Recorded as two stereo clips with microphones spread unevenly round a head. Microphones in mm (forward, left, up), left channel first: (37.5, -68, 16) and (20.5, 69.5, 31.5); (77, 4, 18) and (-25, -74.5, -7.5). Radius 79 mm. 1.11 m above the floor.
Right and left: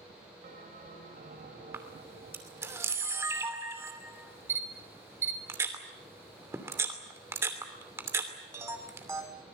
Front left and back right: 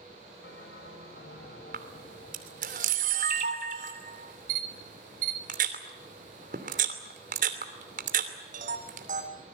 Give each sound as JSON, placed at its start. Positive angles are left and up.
{"t": 0.4, "sound": "a bell", "azimuth_deg": 65, "distance_m": 5.0}
{"t": 1.7, "sound": "a camera shutter", "azimuth_deg": 170, "distance_m": 2.5}